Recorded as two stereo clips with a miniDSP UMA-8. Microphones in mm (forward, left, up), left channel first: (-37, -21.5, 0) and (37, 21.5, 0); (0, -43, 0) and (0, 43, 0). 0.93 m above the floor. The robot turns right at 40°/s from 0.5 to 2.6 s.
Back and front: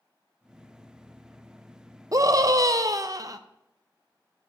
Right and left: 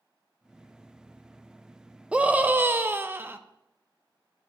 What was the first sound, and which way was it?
A scream, 20° left.